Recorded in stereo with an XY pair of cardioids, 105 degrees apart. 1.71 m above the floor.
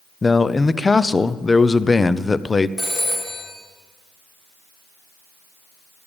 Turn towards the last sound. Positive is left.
turn(degrees=0)